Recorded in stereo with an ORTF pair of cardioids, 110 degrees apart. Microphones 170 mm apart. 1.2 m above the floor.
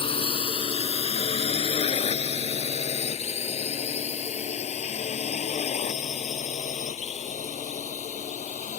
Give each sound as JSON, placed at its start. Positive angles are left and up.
{"t": 0.0, "sound": "a drone", "azimuth_deg": 30}